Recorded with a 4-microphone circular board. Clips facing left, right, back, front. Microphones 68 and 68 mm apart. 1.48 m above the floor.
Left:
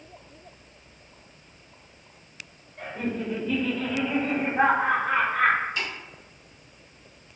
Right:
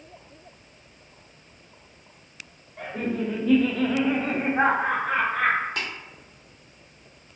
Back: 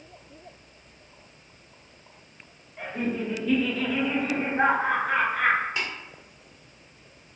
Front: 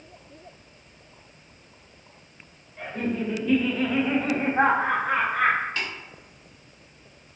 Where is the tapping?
110° right, 1.1 m.